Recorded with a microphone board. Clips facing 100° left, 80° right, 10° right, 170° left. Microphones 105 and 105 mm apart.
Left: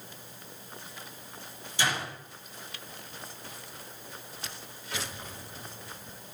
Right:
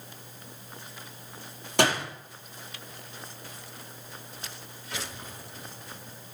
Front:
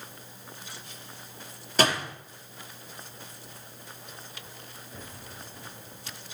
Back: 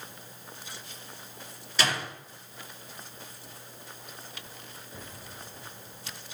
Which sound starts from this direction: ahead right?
A door slam, at 1.8 s.